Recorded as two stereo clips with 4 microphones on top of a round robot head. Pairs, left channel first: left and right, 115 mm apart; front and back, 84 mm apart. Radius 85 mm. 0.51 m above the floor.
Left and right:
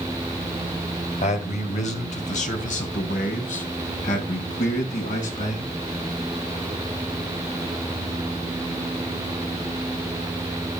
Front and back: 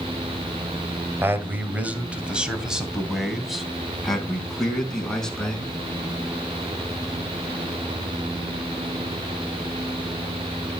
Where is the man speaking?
120° left, 2 m; by 5.7 s 85° left, 5 m.